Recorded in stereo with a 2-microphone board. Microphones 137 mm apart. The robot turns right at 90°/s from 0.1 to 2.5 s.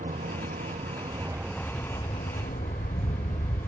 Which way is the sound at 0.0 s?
65° right (ahead or behind).